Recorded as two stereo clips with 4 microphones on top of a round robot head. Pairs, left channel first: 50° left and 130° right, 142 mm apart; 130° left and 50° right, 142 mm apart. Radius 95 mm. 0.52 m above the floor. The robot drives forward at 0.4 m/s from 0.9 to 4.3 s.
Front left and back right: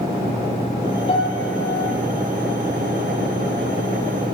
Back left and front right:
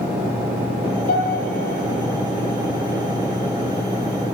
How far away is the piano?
About 10 m.